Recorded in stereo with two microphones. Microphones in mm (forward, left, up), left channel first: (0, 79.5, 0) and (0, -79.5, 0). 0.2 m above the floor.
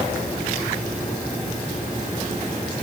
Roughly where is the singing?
I don't hear singing.